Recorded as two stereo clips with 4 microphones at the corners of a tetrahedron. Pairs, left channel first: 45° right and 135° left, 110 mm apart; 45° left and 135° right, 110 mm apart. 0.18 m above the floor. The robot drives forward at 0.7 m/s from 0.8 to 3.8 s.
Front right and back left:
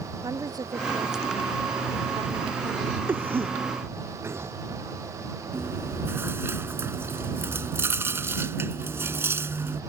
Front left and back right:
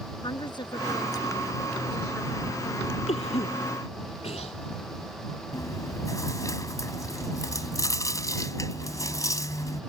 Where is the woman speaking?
85° left; by 3.0 s 115° left.